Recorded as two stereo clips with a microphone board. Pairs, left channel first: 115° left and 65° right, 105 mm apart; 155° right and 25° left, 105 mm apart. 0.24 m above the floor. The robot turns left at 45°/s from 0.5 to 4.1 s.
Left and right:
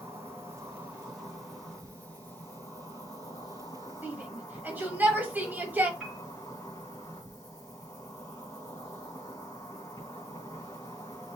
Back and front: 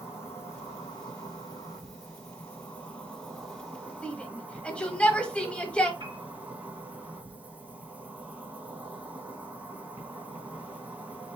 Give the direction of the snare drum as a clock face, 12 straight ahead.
I don't hear a snare drum.